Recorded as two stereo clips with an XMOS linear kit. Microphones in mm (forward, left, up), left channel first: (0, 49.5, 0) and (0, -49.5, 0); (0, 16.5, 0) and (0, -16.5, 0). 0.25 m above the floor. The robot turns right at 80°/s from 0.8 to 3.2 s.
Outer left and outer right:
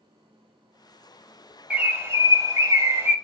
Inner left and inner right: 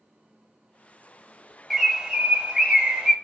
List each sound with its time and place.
1.7 s a bird: 155° right, 0.6 m; by 3.1 s 40° right, 0.6 m